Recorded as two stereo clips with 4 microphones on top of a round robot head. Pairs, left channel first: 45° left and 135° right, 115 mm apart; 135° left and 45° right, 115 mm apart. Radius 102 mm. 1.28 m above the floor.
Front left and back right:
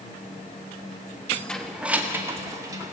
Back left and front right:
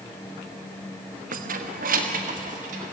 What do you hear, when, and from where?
1.3 s keys jangling: 30° right, 1.2 m; by 2.9 s 75° right, 3 m